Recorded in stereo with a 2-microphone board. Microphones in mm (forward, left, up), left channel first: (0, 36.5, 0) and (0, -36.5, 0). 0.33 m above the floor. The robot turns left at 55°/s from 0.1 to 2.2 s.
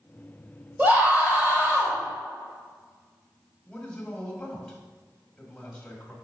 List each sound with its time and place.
0.8 s a scream: 20° right (ahead or behind), 1.6 m; by 2.0 s 25° right (ahead or behind), 1.6 m
3.6 s a man speaking: 15° left (ahead or behind), 1.6 m